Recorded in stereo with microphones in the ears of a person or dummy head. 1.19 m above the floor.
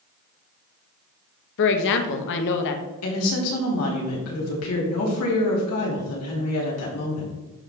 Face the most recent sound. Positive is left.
turn(degrees=80)